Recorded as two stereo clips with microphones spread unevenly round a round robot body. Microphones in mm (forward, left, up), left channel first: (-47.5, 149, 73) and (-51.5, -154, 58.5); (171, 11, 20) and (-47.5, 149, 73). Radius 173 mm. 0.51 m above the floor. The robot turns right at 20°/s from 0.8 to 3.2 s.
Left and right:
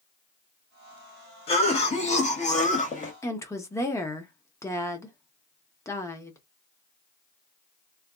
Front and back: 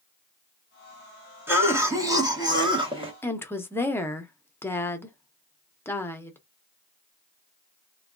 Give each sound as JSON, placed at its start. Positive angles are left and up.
{"t": 1.5, "sound": "a cough", "azimuth_deg": 50, "distance_m": 1.2}
{"t": 3.2, "sound": "a woman speaking", "azimuth_deg": 15, "distance_m": 0.9}